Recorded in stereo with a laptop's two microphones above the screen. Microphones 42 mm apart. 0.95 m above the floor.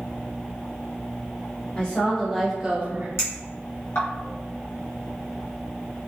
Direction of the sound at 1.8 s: 25° left (ahead or behind).